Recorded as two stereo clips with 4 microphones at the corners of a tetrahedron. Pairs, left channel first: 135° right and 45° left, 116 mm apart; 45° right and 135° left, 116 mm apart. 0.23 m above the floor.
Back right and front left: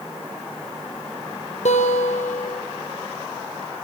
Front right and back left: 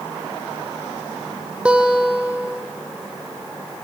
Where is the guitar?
145° right, 3 m.